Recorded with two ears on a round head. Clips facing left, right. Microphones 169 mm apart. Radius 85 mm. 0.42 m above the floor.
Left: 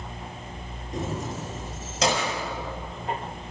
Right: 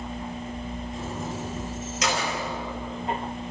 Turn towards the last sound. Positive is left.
turn(degrees=25)  # may be behind; listen again after turning